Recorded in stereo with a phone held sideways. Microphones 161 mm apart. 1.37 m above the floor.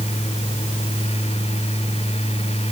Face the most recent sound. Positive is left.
turn(degrees=40)  # may be behind; listen again after turning